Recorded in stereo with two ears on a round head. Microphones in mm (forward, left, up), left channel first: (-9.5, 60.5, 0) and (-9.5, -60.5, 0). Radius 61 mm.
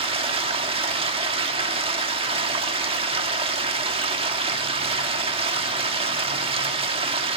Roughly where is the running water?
Right.